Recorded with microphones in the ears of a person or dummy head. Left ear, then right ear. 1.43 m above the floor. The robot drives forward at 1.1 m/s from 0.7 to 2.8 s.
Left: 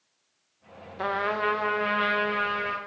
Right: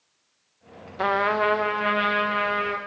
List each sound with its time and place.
1.0 s a trumpet: 15° right (ahead or behind), 0.5 m; by 2.8 s 5° right (ahead or behind), 2.5 m